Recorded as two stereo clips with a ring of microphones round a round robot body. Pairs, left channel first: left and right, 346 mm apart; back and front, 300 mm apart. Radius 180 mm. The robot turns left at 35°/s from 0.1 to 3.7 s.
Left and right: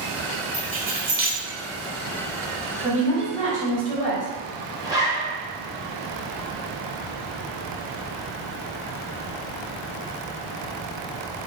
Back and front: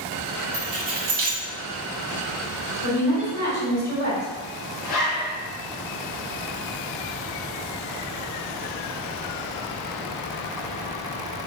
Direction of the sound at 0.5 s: 20° right.